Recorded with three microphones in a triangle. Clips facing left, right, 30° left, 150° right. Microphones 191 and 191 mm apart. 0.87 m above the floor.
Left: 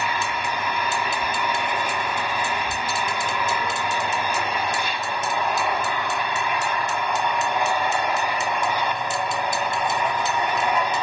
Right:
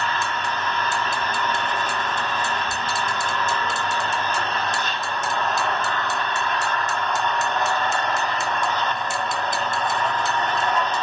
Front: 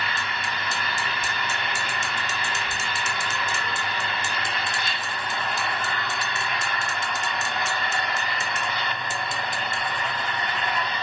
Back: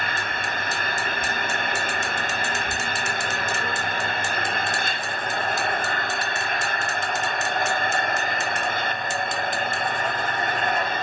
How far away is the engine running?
About 1.5 m.